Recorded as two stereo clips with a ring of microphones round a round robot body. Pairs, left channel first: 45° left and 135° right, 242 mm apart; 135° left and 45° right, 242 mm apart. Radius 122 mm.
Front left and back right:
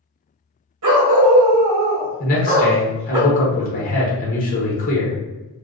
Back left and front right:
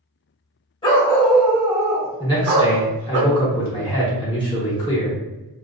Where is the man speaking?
75° left, 0.8 m.